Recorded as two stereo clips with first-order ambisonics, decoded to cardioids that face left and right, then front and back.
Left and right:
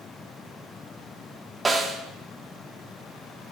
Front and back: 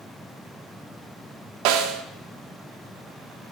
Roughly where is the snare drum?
Behind.